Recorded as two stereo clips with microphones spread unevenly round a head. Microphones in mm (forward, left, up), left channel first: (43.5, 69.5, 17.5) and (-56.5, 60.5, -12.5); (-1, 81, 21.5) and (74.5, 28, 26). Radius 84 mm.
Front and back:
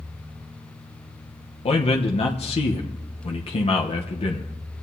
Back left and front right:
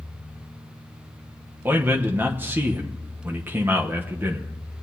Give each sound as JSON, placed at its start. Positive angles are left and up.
{"t": 1.6, "sound": "a man speaking", "azimuth_deg": 35, "distance_m": 1.0}